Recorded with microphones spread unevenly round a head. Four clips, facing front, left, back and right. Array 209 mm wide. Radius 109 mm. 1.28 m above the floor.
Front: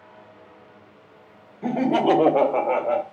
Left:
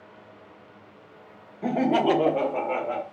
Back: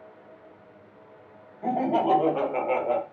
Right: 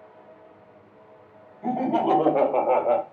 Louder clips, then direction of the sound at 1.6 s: Left 1 dB, front 3 dB; 55° left.